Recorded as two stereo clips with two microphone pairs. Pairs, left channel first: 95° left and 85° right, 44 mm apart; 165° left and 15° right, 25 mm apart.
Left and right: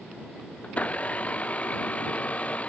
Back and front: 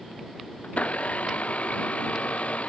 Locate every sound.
0.6 s a blender: 150° left